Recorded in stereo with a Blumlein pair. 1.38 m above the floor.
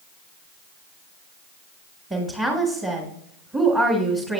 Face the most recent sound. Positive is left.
turn(degrees=-10)